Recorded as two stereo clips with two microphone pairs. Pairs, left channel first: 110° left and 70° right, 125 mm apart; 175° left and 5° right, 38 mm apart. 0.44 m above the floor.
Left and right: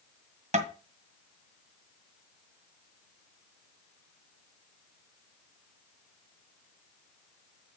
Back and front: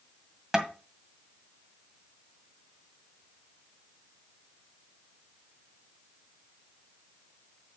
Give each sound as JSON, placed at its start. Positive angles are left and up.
{"t": 0.5, "sound": "tapping", "azimuth_deg": -85, "distance_m": 1.9}